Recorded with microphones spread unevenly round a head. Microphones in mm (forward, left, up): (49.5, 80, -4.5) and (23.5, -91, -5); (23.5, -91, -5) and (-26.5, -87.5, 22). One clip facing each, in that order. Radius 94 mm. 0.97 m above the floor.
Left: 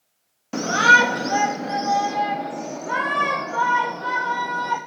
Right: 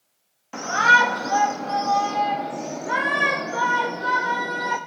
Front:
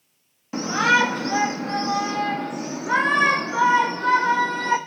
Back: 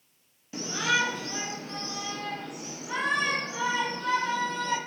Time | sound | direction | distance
0.5 | a shout | 35° left | 1.2 m